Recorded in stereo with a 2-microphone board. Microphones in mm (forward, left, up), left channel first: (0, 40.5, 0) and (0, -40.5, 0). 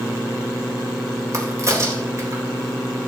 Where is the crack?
40° right (ahead or behind), 3.5 m.